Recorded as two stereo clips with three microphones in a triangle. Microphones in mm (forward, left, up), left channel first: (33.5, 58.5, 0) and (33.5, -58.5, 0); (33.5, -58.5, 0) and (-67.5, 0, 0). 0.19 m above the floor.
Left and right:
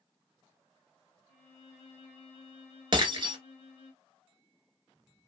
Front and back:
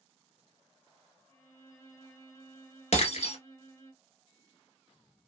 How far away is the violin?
About 1.6 m.